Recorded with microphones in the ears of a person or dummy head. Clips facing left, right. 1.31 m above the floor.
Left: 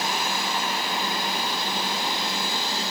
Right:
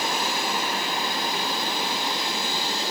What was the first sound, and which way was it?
Only background noise.